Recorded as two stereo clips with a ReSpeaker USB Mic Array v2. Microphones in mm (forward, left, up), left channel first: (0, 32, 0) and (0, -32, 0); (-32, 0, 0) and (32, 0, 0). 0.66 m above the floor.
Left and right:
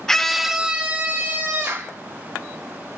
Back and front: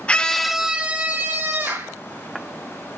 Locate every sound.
0.1 s a scream: 155° left, 0.5 m; by 1.9 s 40° right, 1.0 m